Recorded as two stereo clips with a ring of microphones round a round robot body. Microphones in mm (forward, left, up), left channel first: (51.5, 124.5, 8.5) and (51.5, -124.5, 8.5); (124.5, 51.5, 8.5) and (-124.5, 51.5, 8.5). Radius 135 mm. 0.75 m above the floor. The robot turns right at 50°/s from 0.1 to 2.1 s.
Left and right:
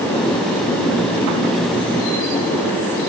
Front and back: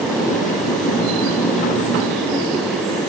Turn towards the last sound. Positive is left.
No sound to turn to.